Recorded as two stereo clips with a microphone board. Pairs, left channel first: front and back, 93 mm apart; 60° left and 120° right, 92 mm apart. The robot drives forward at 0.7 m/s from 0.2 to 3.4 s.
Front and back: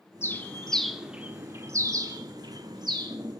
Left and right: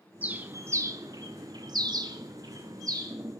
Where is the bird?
55° right, 1.0 m; by 3.2 s 160° right, 1.8 m.